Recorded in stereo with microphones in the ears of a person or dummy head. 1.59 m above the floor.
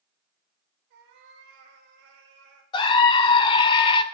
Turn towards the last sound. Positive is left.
turn(degrees=30)  # may be behind; listen again after turning